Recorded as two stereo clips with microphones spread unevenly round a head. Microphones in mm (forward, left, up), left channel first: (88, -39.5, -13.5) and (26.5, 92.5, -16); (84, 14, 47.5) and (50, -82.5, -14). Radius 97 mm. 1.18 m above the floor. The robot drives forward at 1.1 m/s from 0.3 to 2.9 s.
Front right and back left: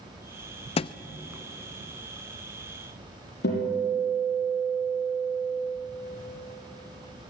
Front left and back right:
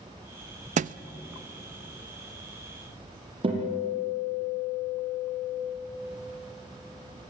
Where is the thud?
85° right, 0.5 m; by 1.0 s 120° right, 0.6 m.